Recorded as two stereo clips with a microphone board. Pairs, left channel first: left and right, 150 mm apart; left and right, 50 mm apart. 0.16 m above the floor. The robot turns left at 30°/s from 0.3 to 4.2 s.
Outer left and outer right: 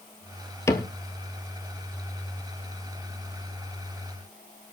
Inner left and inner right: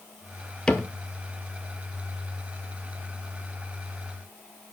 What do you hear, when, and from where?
0.7 s a cupboard door: 20° left (ahead or behind), 1.4 m; by 0.9 s 25° left (ahead or behind), 1.4 m